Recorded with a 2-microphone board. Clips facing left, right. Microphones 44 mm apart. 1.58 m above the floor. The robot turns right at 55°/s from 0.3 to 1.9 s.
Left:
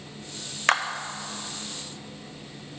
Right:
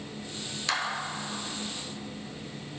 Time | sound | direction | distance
0.7 | a clap | 50° left (ahead or behind) | 0.6 m